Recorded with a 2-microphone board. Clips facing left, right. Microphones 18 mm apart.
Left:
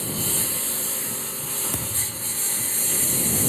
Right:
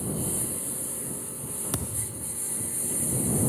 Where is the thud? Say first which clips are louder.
Left 5 dB; 15° right (ahead or behind).